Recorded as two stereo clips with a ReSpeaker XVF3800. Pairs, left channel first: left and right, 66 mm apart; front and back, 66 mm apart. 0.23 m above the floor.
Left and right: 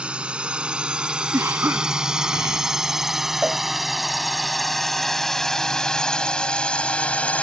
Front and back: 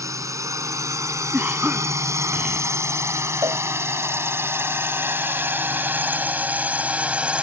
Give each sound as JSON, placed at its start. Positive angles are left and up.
{"t": 0.0, "sound": "a drone", "azimuth_deg": -160}
{"t": 1.3, "sound": "a cough", "azimuth_deg": -125}
{"t": 3.4, "sound": "a cowbell", "azimuth_deg": -165}